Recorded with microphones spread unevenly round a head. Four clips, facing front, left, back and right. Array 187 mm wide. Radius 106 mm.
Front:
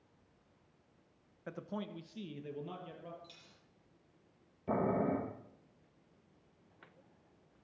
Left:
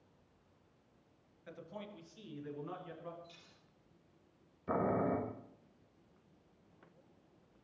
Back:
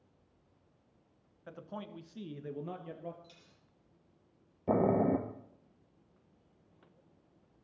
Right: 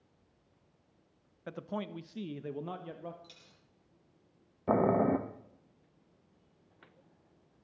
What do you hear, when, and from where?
1.5 s a man speaking: 45° right, 1.1 m; by 3.1 s 130° right, 1.9 m
3.2 s a dropped coin: 90° right, 8 m
4.7 s boiling: 135° right, 1.0 m